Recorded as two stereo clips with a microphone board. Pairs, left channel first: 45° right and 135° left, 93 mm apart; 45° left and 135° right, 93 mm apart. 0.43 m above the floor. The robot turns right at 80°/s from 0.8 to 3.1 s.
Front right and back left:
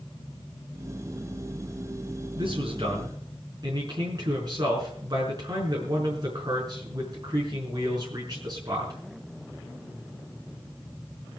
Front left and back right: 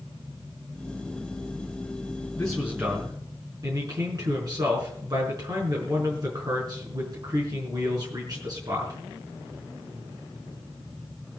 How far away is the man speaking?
About 5 m.